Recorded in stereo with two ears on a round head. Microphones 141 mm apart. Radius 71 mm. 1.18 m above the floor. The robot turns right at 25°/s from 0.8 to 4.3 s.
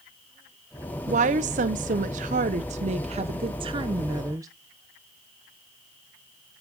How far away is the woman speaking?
About 0.7 m.